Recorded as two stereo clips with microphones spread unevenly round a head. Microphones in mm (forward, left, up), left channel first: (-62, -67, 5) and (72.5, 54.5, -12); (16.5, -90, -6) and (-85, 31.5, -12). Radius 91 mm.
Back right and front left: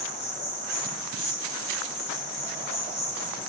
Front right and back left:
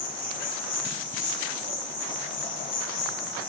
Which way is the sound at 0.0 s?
70° right.